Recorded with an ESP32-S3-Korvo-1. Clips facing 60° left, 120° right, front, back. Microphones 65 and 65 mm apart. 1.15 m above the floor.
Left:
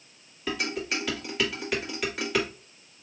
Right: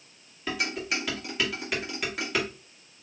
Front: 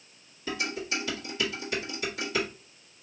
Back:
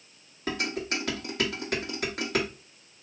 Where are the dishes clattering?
150° left, 1.6 m.